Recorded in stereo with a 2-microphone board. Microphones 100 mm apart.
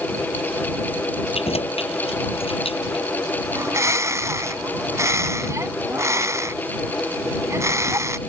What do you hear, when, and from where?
1.3 s keys jangling: 80° left; by 3.0 s 65° left (ahead or behind)
3.5 s a bird: 30° right (ahead or behind)